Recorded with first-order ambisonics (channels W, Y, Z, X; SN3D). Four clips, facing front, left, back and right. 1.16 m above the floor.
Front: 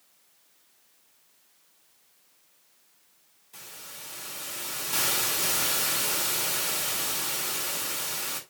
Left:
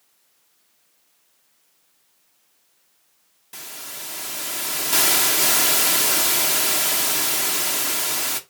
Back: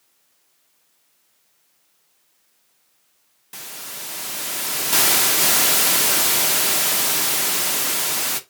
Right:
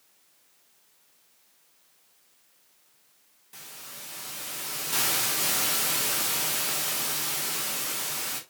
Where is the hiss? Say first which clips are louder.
Left 8 dB, back 9 dB; 150° left, 0.8 m.